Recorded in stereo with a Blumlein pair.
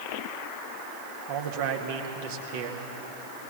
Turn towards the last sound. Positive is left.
turn(degrees=-50)